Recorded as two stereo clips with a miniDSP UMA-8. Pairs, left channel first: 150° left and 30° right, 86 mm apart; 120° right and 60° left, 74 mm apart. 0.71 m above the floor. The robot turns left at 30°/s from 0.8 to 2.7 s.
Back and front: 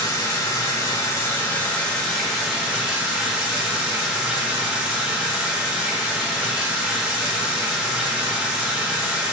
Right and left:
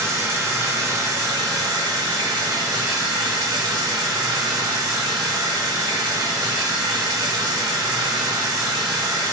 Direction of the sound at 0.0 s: 105° left.